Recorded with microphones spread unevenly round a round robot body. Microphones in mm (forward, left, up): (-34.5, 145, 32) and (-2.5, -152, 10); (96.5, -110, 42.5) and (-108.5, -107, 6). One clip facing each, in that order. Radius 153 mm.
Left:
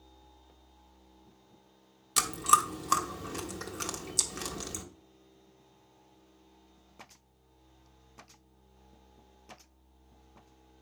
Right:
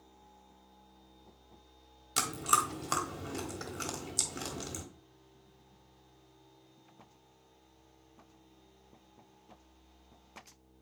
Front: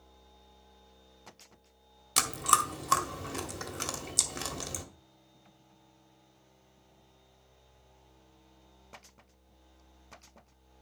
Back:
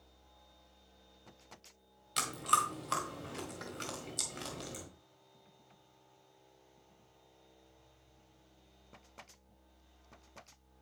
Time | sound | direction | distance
2.2 | chewing | 15° left | 1.3 m